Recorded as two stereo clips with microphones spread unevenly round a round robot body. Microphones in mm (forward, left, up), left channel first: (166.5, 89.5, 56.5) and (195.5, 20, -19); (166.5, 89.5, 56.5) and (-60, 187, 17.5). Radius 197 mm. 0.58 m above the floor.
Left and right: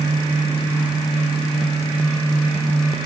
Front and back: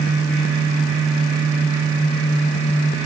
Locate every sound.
Only background noise.